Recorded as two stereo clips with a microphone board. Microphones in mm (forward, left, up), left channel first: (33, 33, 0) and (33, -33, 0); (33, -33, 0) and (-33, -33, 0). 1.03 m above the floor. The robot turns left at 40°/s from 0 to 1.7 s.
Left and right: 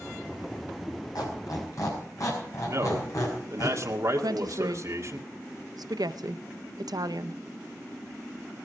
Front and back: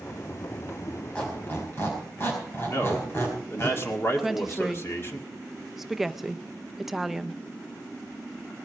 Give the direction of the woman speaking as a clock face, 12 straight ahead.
3 o'clock.